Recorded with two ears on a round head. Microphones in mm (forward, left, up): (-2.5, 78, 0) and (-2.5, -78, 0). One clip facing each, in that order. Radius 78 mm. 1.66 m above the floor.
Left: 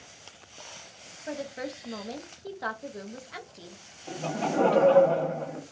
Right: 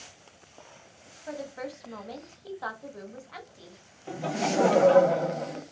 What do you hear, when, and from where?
1.3 s a woman speaking: 30° left (ahead or behind), 1.0 m
4.1 s laughter: 10° right (ahead or behind), 0.9 m